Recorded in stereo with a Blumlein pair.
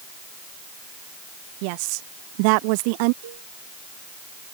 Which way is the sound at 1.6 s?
45° right.